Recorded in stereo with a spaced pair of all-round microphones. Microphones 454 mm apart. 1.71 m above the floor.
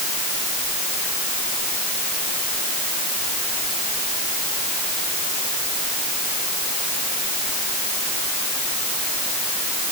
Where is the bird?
No bird in this recording.